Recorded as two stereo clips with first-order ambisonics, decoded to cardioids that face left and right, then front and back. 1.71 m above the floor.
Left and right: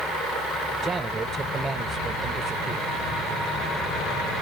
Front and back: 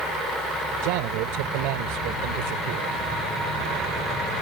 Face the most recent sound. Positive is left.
turn(degrees=-170)